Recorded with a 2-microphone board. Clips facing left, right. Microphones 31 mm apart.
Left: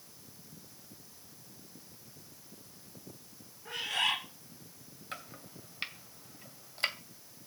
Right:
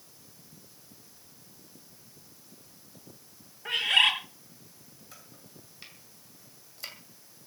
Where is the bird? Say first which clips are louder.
Right 9 dB; 75° right (ahead or behind), 5.5 m.